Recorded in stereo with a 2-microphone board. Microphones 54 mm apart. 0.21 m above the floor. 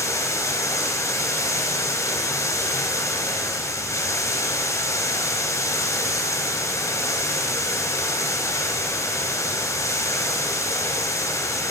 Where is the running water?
65° left (ahead or behind), 2 m.